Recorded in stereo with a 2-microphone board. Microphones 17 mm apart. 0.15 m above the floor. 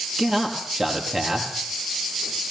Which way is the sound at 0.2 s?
25° right (ahead or behind).